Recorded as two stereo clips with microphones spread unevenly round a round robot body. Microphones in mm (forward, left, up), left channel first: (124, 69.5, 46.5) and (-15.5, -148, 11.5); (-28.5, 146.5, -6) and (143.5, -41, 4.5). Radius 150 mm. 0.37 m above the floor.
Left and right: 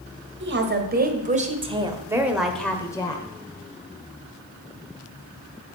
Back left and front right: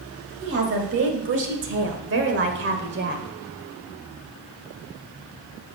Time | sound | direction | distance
0.4 | a woman speaking | 95° right | 1.9 m